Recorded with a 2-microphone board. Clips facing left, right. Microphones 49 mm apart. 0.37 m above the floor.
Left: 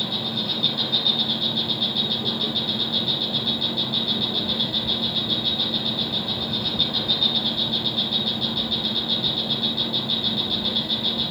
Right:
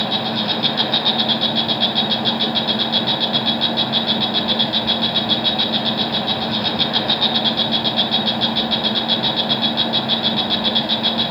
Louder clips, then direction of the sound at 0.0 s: Right 7 dB; 70° right (ahead or behind).